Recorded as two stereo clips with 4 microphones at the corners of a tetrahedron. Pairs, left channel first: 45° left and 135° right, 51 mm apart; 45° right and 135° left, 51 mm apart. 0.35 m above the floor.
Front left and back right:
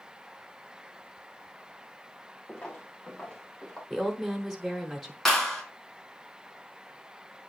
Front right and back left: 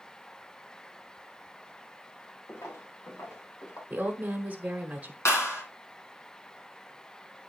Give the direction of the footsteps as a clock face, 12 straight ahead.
1 o'clock.